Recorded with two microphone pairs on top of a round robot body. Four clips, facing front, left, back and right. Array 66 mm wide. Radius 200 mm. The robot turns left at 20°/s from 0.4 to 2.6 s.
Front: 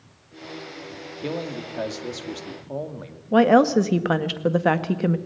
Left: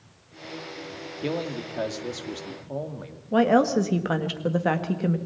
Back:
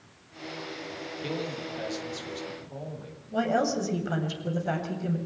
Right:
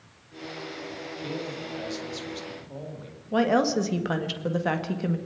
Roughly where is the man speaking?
Ahead left.